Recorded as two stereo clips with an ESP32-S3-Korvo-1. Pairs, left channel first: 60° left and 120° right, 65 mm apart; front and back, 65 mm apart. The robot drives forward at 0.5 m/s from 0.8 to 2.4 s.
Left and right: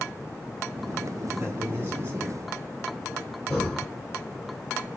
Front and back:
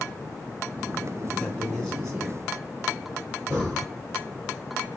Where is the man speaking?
70° right, 2 m; by 3.4 s 90° right, 2 m.